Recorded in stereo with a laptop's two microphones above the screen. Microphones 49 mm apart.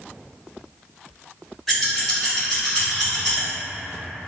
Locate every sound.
1.7 s scissors: 5° right (ahead or behind), 2.0 m